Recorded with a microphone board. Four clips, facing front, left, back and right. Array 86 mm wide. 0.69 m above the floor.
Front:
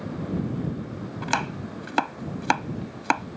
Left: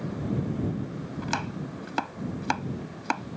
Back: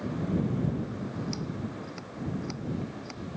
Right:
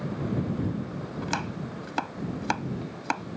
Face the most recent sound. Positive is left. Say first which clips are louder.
# even, front 6 dB
turn(degrees=5)